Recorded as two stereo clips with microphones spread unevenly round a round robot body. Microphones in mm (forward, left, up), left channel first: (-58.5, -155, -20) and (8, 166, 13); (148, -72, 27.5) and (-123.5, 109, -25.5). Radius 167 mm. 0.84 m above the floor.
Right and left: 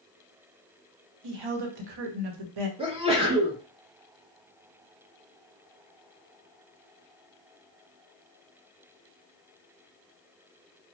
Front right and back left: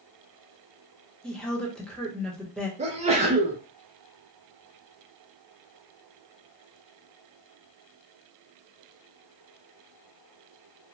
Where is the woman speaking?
55° left, 0.8 m.